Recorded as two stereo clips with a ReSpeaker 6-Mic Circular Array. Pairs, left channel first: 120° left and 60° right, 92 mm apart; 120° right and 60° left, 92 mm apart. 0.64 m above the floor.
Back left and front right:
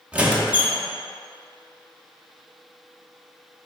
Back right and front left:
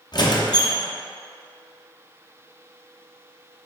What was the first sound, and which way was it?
A squeak, 130° right.